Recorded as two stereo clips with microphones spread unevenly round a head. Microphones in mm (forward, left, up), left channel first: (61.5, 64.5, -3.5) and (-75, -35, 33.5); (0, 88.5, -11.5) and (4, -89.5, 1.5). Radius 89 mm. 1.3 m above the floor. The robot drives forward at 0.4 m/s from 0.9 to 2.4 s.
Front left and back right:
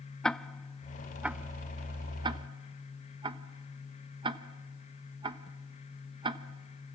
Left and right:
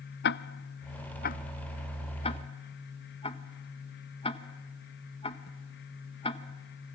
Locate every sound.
0.2 s ticking: 125° left, 0.5 m; by 7.0 s 155° left, 1.0 m